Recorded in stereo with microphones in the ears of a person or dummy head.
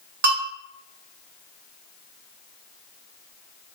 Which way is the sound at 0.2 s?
50° right (ahead or behind).